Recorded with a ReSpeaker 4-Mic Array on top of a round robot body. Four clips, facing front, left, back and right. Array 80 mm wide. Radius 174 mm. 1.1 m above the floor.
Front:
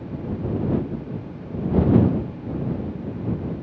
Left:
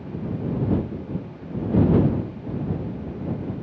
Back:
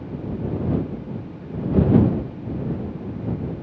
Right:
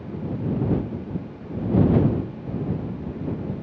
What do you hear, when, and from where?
Only background noise.